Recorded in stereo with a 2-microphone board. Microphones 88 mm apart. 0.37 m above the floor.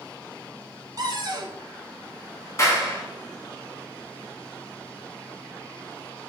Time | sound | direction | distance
1.0 | a cupboard door | 50° right (ahead or behind) | 1.1 m
2.6 | a clap | 35° left (ahead or behind) | 2.5 m